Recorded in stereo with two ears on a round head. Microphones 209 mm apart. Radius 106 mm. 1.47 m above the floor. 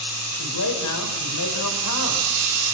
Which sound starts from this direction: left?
A man speaking, at 0.3 s.